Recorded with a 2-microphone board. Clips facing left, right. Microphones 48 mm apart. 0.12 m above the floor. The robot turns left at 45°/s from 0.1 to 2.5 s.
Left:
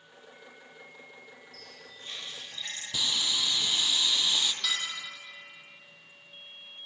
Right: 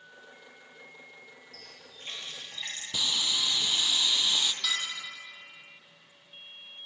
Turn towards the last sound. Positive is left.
turn(degrees=-5)  # may be behind; listen again after turning